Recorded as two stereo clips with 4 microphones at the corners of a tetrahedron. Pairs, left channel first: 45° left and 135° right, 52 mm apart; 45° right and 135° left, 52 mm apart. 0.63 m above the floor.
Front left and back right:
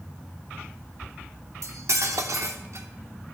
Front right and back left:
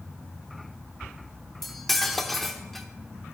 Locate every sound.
1.6 s cutlery clinking: 130° right, 0.9 m